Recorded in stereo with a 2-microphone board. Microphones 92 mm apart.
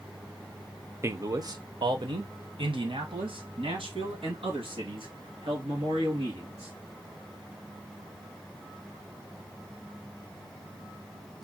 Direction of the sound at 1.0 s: 30° right (ahead or behind).